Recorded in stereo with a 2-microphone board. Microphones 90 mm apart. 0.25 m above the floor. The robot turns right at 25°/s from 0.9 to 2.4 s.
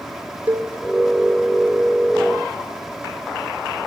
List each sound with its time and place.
0.5 s a cowbell: 20° right (ahead or behind), 2.5 m